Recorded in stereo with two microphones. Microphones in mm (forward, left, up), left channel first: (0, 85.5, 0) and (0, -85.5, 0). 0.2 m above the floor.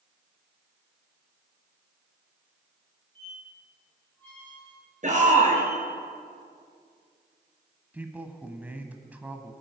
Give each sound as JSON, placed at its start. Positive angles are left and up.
{"t": 3.1, "sound": "a squeak", "side_deg": 10, "distance_m": 4.5}
{"t": 5.0, "sound": "a shout", "side_deg": -45, "distance_m": 4.0}
{"t": 7.9, "sound": "a man speaking", "side_deg": -10, "distance_m": 1.3}